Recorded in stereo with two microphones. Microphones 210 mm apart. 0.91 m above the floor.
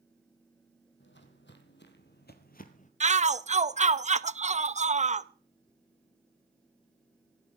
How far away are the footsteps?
About 2.0 m.